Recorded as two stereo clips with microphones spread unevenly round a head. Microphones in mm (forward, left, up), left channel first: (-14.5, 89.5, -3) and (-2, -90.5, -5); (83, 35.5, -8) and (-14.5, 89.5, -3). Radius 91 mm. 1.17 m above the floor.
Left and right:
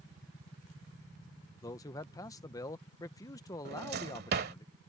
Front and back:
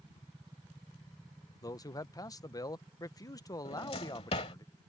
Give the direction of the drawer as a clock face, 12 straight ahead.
2 o'clock.